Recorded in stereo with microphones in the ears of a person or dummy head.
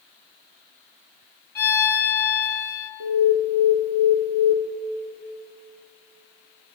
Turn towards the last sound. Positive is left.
turn(degrees=-80)